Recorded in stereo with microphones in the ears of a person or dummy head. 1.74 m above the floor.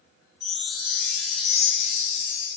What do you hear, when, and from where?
0.4 s a chime: centre (ahead or behind), 0.6 m